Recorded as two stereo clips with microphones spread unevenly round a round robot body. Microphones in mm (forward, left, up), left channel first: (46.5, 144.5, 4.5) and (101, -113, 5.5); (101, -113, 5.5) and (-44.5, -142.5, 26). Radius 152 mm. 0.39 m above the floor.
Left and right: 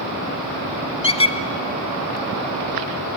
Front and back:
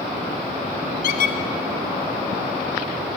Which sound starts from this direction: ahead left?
A squeak, at 1.0 s.